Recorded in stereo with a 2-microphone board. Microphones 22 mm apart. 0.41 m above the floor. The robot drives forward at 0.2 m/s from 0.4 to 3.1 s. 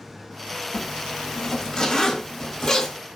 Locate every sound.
0.7 s a zipper: 25° left (ahead or behind), 0.9 m; by 3.0 s 15° left (ahead or behind), 1.3 m